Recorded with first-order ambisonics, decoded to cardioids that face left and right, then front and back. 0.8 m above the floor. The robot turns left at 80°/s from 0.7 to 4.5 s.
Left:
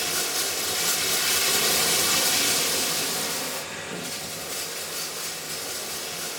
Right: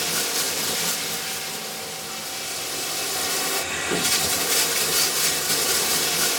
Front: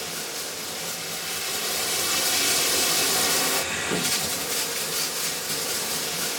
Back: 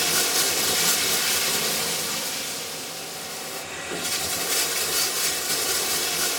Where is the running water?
160° right, 0.9 m; by 6.4 s 100° right, 0.9 m.